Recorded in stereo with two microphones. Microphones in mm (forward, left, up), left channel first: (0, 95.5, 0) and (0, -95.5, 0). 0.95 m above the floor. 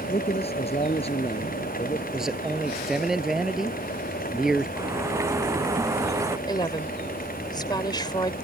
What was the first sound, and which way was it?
A man speaking, 30° left (ahead or behind).